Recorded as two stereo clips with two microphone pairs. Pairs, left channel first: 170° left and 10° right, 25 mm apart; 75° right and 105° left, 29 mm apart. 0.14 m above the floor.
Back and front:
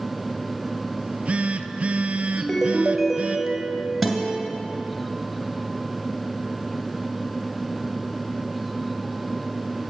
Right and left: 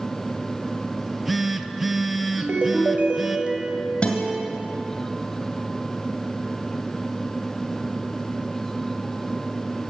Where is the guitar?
105° right, 2 m.